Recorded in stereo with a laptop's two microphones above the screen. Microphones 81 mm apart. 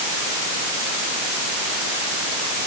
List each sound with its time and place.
Only background noise.